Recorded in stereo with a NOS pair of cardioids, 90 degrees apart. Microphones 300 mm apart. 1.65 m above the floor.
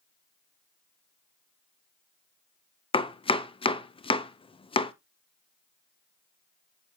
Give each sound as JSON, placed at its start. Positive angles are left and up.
{"t": 2.9, "sound": "chopping", "azimuth_deg": 15, "distance_m": 0.9}